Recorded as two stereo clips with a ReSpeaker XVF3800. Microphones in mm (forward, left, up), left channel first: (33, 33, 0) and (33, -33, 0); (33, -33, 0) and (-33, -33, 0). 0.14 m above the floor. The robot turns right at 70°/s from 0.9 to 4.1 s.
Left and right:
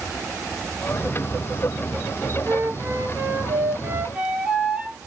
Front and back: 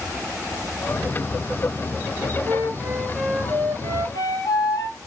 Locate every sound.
2.5 s a flute: 135° right, 2 m; by 5.0 s 20° right, 2 m